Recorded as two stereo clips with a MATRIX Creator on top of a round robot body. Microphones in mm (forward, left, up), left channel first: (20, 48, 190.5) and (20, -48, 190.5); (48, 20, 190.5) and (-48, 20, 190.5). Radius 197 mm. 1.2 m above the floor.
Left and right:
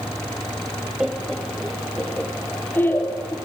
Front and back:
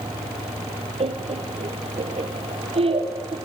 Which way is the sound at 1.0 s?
170° right.